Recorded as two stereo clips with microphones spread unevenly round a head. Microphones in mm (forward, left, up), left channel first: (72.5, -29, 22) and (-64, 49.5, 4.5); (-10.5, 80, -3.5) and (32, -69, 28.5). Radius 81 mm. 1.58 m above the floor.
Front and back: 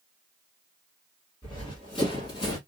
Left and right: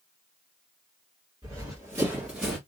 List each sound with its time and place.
1.4 s running footsteps: 50° right, 1.8 m; by 2.6 s 10° right, 1.7 m